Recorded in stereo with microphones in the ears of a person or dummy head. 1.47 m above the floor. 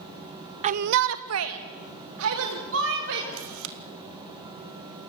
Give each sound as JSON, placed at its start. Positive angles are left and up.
{"t": 0.6, "sound": "a shout", "side_deg": -35, "distance_m": 0.7}
{"t": 3.3, "sound": "a camera shutter", "side_deg": -75, "distance_m": 2.0}